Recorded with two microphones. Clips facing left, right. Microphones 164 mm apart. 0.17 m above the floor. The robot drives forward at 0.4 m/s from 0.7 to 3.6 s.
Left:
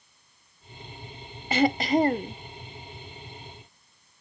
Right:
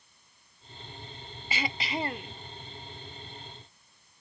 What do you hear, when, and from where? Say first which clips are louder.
1.5 s throat clearing: left 13 dB; 55° left (ahead or behind); by 2.4 s 40° left (ahead or behind)